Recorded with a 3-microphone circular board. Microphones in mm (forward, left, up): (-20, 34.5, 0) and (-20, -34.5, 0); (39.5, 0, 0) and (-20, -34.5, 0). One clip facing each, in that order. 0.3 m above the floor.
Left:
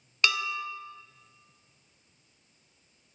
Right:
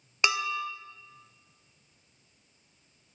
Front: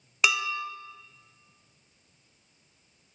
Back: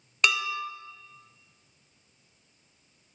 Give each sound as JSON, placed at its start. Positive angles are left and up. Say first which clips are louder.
{"t": 0.2, "sound": "dishes clattering", "louder": "right 1 dB, even", "azimuth_deg": -55, "distance_m": 0.6}